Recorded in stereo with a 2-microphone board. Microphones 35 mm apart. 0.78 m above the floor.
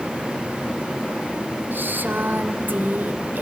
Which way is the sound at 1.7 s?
75° right (ahead or behind).